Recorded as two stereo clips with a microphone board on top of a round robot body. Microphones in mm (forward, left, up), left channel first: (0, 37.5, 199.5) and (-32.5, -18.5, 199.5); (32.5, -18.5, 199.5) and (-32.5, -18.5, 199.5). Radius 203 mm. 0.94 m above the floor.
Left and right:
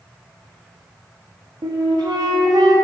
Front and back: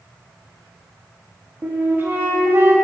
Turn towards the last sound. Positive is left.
turn(degrees=-120)